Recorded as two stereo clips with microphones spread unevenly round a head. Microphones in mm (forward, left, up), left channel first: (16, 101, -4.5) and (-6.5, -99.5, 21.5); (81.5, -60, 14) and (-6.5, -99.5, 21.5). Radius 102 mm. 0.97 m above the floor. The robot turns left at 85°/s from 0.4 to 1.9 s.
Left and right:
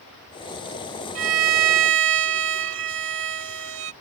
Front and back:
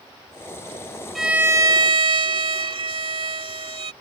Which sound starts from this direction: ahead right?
A violin, at 1.1 s.